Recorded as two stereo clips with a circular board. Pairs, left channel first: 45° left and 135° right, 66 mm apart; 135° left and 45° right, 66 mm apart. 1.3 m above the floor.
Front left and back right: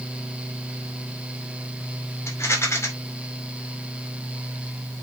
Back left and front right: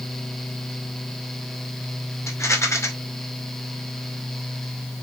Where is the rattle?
95° left, 2 m.